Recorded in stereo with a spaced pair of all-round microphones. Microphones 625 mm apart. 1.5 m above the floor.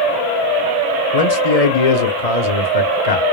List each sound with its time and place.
1.1 s a man speaking: 75° left (ahead or behind), 0.7 m